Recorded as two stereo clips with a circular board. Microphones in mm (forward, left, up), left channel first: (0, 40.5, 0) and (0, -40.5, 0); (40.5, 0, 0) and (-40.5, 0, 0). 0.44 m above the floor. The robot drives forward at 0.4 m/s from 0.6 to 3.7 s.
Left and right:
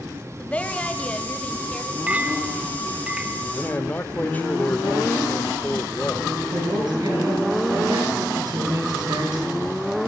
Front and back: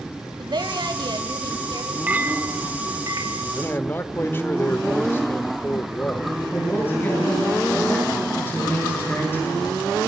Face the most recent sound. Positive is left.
turn(degrees=-65)